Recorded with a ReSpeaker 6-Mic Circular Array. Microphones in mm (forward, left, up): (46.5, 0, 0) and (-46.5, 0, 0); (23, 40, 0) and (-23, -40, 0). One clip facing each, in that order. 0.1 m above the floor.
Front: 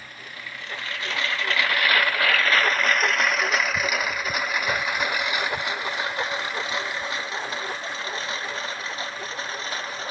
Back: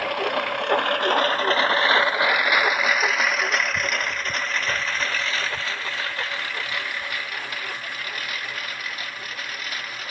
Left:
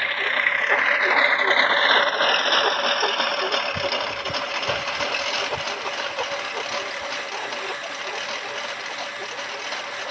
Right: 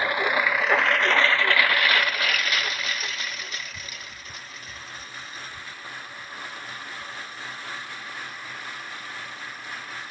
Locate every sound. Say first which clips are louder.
0.0 s a lawn mower: back 17 dB, right 2 dB; 170° left; by 10.1 s 60° left